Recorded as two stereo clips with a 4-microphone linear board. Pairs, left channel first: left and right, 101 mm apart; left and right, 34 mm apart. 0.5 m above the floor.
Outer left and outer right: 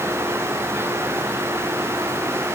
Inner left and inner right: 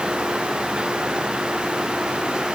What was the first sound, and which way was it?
Only background noise.